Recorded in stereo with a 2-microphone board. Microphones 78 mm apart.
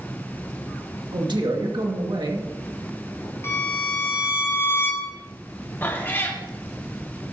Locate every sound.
1.1 s a man speaking: 75° right (ahead or behind), 2 m
3.4 s a violin: 30° left (ahead or behind), 3 m
5.8 s a cat meowing: 25° left (ahead or behind), 1.7 m